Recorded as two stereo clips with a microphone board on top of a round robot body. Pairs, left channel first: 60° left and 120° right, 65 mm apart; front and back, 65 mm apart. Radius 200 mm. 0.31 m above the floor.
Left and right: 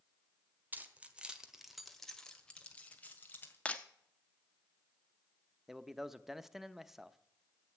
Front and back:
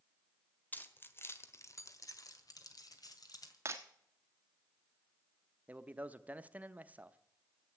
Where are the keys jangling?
60° right, 1.6 m; by 3.5 s straight ahead, 2.5 m.